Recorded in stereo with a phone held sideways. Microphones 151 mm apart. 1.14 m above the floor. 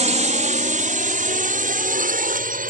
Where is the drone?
50° right (ahead or behind); by 2.7 s 65° right (ahead or behind).